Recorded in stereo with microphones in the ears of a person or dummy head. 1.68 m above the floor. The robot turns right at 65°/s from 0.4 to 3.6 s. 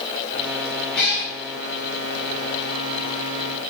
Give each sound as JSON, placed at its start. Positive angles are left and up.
{"t": 0.9, "sound": "a cat meowing", "side_deg": 5, "distance_m": 1.9}